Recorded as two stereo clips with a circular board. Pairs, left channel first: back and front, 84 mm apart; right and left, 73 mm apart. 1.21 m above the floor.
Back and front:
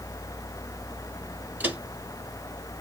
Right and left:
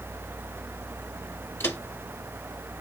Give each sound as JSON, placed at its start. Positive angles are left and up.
{"t": 1.6, "sound": "footsteps", "azimuth_deg": -50, "distance_m": 1.4}